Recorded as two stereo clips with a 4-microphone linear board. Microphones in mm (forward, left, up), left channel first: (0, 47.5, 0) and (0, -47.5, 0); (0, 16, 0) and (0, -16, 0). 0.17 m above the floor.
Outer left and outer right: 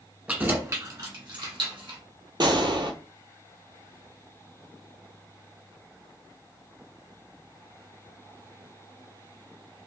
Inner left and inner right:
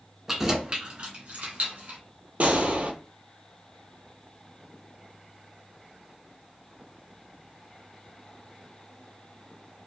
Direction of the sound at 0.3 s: 15° right (ahead or behind).